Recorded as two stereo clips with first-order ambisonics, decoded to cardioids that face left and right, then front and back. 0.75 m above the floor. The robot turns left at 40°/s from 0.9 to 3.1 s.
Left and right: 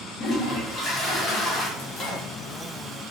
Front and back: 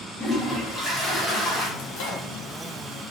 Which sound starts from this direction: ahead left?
A microwave, at 1.8 s.